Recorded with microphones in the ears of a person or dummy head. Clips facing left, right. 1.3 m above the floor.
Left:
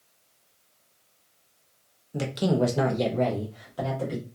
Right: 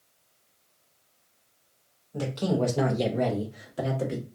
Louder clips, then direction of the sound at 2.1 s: Left 2 dB; 25° left (ahead or behind).